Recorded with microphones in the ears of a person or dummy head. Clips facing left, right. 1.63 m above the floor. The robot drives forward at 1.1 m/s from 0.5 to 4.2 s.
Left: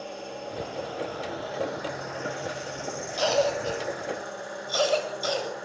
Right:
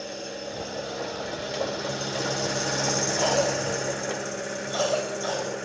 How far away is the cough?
About 10 m.